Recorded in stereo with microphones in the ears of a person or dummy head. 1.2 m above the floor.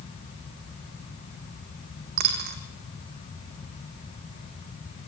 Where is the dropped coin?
55° right (ahead or behind), 3 m.